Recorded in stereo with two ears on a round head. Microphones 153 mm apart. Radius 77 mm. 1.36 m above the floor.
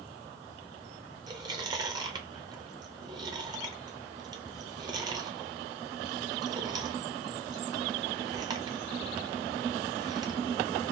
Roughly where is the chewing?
Right.